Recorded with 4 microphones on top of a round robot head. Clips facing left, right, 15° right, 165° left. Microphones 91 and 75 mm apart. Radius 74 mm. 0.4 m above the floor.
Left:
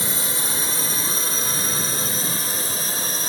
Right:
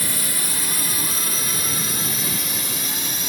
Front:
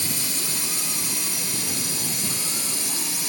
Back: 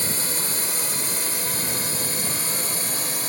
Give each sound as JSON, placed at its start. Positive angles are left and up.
{"t": 0.0, "sound": "a drone", "azimuth_deg": 145}